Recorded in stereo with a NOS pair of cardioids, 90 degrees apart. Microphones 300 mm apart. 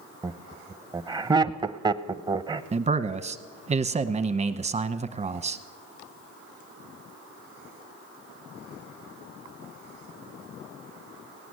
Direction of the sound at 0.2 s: 15° right.